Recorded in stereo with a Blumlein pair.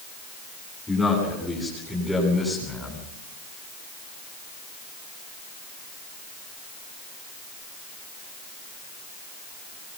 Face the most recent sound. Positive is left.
turn(degrees=-5)